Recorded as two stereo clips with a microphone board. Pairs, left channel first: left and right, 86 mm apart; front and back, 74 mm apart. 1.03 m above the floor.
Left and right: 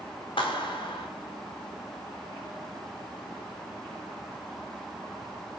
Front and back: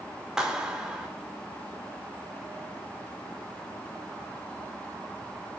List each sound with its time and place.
0.4 s a clap: 95° left, 3 m